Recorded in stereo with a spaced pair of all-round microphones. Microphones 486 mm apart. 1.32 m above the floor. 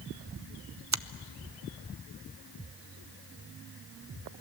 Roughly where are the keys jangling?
I don't hear keys jangling.